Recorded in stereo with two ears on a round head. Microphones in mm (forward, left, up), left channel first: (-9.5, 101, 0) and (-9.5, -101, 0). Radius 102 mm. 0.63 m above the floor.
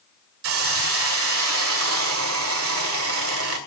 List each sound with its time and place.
0.4 s a hiss: 65° right (ahead or behind), 2.5 m